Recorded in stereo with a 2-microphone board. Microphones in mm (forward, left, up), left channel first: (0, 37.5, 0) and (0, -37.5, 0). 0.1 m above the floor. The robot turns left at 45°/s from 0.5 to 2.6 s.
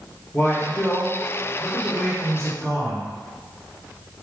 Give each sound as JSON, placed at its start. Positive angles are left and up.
{"t": 0.3, "sound": "a man speaking", "azimuth_deg": 25, "distance_m": 1.8}